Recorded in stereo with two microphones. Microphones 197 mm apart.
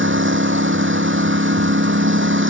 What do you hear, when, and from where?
0.0 s a lawn mower: 80° right